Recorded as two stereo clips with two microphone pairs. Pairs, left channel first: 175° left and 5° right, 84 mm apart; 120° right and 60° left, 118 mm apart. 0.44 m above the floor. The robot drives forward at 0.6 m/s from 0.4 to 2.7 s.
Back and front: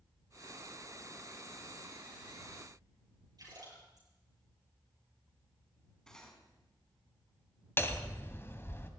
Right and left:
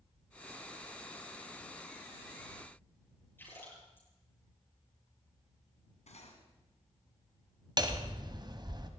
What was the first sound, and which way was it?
A splash, 45° right.